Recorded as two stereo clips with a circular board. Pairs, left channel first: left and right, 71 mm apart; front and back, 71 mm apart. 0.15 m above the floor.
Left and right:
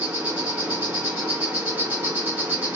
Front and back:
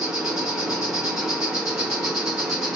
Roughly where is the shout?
No shout in this recording.